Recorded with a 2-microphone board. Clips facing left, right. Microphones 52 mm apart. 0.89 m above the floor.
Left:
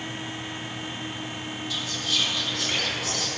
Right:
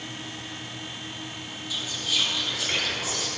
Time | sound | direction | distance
1.7 | whispering | 5° right (ahead or behind) | 2.5 m